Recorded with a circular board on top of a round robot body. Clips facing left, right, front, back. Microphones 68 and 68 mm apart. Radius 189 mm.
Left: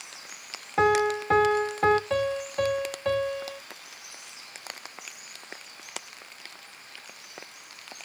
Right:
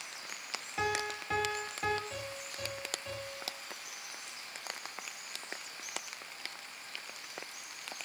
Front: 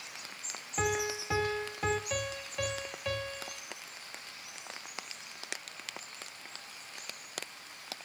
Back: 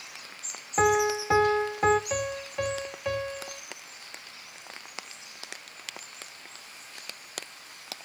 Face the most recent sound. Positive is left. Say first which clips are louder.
# left 16 dB, back 6 dB
turn(degrees=110)